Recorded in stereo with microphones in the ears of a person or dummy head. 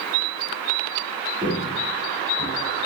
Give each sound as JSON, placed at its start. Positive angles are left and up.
{"t": 1.4, "sound": "footsteps", "side_deg": -25, "distance_m": 3.0}